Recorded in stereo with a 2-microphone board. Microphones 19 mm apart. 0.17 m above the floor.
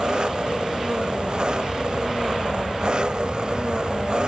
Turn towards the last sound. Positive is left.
turn(degrees=-50)  # may be behind; listen again after turning